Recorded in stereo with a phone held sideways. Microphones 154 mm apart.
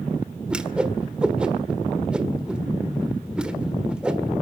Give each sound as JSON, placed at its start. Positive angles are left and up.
{"t": 0.5, "sound": "a whoosh", "side_deg": -5, "distance_m": 1.5}